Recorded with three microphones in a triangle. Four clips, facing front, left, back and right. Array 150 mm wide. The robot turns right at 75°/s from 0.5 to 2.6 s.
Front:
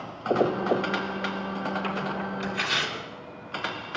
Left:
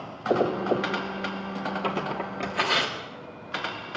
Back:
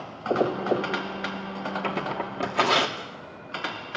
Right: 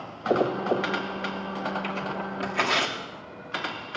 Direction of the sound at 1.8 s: 130° left.